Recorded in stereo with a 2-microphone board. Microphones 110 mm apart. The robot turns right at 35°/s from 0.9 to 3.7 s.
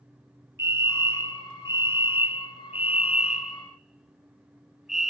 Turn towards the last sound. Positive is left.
turn(degrees=-5)  # may be behind; listen again after turning